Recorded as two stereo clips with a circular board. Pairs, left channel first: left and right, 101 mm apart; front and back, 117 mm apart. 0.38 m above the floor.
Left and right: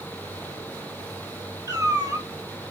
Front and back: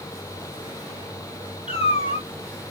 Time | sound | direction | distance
1.7 | a cat meowing | 35° right | 1.0 m